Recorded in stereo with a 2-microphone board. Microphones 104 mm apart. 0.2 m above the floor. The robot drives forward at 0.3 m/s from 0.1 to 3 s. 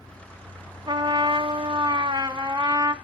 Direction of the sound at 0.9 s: 50° right (ahead or behind).